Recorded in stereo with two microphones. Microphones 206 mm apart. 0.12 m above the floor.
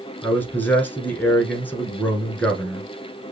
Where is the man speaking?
10° left (ahead or behind), 1.1 m.